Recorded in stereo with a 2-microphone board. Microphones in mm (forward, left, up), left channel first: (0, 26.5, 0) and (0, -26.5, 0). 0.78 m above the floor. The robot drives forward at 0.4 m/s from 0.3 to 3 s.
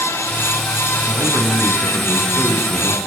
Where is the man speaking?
75° right (ahead or behind), 7.5 m; by 3.0 s 70° right (ahead or behind), 8 m.